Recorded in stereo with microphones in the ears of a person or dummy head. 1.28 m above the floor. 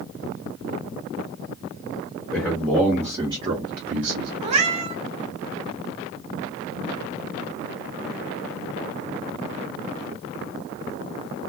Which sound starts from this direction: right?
A cat meowing, at 4.4 s.